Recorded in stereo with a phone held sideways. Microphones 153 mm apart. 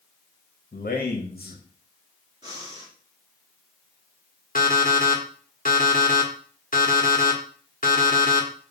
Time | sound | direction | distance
0.7 | a man speaking | 80° left | 1.9 m
2.4 | breathing | 25° right (ahead or behind) | 4 m
4.5 | an alarm clock | 65° left (ahead or behind) | 1.8 m